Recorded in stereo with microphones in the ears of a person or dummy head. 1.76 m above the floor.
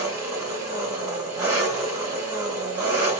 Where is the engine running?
15° right (ahead or behind), 1.6 m.